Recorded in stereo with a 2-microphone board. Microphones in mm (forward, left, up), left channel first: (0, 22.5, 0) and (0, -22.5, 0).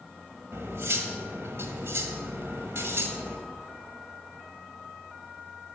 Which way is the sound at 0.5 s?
75° right (ahead or behind).